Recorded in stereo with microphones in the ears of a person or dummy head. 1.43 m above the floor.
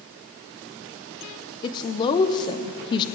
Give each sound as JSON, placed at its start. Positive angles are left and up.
{"t": 1.6, "sound": "a woman speaking", "side_deg": 25, "distance_m": 0.7}